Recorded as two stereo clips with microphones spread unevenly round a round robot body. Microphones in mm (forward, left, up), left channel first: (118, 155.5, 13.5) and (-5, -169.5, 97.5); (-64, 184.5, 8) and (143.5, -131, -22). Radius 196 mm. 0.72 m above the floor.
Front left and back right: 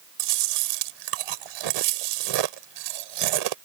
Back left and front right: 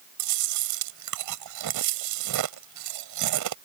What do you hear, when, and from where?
0.2 s chewing: 105° right